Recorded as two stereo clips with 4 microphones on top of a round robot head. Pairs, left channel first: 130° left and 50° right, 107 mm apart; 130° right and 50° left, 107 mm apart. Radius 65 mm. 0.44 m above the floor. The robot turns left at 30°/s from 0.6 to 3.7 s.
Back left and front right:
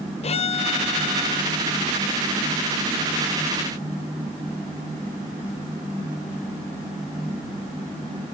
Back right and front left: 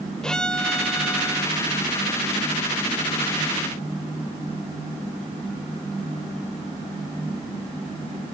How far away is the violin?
About 1.0 m.